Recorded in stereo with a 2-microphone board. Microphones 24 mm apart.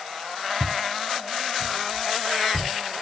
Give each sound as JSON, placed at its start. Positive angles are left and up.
{"t": 0.6, "sound": "footsteps", "side_deg": -60, "distance_m": 2.5}